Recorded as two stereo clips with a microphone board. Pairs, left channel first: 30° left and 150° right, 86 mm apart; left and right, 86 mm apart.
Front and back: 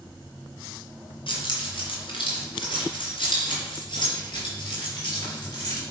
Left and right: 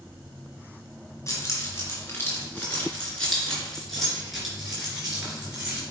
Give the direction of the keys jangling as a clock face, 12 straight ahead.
11 o'clock.